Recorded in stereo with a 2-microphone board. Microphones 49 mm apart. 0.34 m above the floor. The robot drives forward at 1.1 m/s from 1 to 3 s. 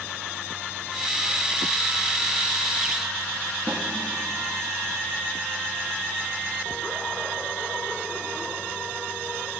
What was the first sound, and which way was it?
A snare drum, 15° right (ahead or behind).